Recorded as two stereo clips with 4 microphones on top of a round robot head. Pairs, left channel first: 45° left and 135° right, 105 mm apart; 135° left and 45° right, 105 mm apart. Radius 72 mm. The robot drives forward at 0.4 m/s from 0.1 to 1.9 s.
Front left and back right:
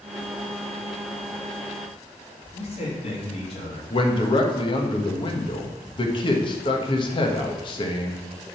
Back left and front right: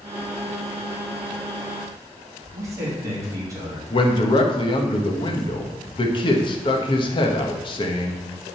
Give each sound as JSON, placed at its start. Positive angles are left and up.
{"t": 2.5, "sound": "a man speaking", "azimuth_deg": 15, "distance_m": 2.5}
{"t": 3.9, "sound": "a man speaking", "azimuth_deg": 90, "distance_m": 1.3}